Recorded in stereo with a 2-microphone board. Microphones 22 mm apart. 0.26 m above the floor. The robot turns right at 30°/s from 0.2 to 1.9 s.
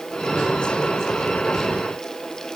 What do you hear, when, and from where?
Only background noise.